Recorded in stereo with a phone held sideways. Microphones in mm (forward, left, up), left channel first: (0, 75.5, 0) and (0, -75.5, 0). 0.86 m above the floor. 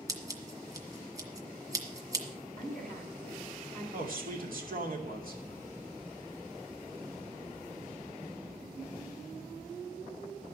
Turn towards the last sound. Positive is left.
turn(degrees=-65)  # may be behind; listen again after turning